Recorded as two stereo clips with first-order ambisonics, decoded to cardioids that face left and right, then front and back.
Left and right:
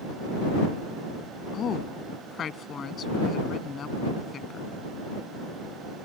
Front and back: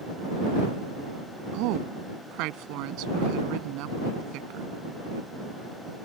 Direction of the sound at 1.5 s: 155° left.